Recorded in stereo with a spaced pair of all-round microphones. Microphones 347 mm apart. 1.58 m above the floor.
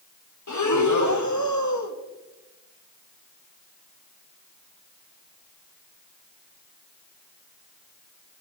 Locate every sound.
0.5 s breathing: 55° left (ahead or behind), 1.3 m